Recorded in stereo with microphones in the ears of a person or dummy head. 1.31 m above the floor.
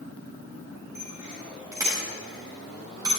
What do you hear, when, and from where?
0.9 s a bicycle bell: 15° right (ahead or behind), 5 m; by 3.1 s 20° right (ahead or behind), 6 m